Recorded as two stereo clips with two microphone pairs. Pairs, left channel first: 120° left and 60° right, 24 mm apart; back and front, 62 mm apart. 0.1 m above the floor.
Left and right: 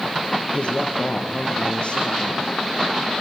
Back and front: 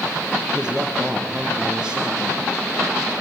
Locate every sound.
0.5 s a man speaking: 80° left, 5 m